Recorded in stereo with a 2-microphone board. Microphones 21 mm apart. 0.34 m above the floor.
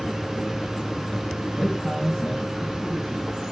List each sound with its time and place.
1.6 s a man speaking: 5° right (ahead or behind), 3 m; by 3.3 s 30° right (ahead or behind), 3 m